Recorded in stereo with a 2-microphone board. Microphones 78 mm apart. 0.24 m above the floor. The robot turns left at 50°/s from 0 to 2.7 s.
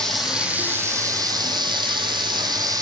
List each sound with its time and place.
0.0 s running water: 10° left, 1.0 m; by 2.8 s 125° right, 1.0 m